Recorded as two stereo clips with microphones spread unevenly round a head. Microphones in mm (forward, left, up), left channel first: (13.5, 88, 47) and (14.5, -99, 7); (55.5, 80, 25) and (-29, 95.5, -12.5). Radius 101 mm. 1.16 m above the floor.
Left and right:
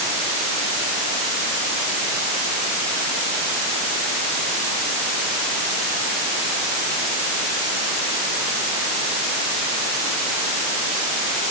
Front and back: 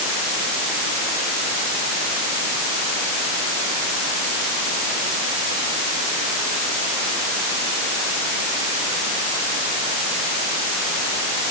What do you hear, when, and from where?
Only background noise.